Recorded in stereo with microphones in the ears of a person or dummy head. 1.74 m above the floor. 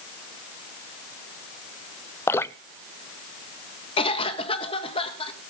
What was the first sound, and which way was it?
Dripping, 15° left (ahead or behind).